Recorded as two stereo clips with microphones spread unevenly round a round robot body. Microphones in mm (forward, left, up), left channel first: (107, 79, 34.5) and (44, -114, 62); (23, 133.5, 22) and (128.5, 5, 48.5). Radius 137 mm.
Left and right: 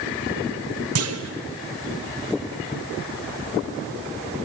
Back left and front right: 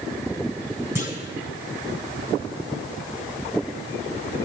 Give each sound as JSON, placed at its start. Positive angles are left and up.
{"t": 0.9, "sound": "a clunk", "azimuth_deg": -130, "distance_m": 0.8}